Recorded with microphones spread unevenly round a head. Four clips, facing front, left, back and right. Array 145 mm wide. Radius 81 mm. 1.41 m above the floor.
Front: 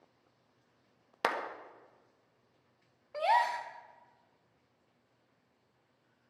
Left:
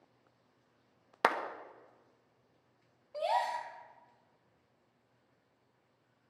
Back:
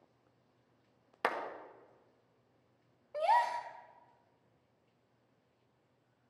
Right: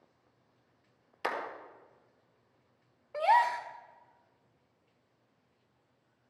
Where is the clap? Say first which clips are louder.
Left 5 dB, front 2 dB; 50° left, 1.5 m.